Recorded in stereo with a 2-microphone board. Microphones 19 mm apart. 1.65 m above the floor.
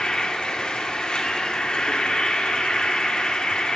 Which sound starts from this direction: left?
An insect, at 0.0 s.